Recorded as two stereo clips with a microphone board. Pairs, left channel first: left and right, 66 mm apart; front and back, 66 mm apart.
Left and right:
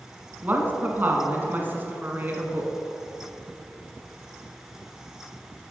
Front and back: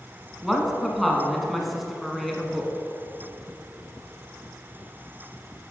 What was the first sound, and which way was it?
A woman speaking, 90° right.